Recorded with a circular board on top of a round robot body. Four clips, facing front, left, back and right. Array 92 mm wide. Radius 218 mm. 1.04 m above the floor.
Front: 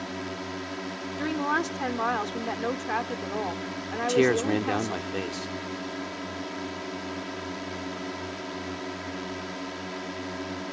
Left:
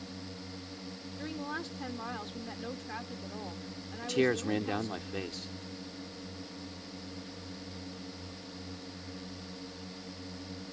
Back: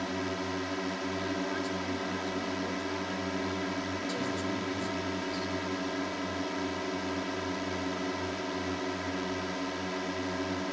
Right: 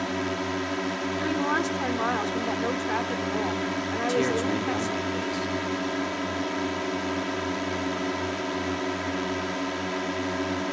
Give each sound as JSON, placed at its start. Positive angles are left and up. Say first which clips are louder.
{"t": 0.0, "sound": "a drone", "louder": "right 17 dB, back 1 dB", "azimuth_deg": -90}
{"t": 1.2, "sound": "a woman speaking", "louder": "right 12 dB, front 10 dB", "azimuth_deg": -35}
{"t": 4.0, "sound": "a man speaking", "louder": "right 3 dB, front 16 dB", "azimuth_deg": 0}